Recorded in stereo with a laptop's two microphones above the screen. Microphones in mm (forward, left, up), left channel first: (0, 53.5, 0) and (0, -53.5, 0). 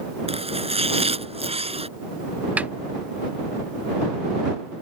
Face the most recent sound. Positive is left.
turn(degrees=-15)  # may be behind; listen again after turning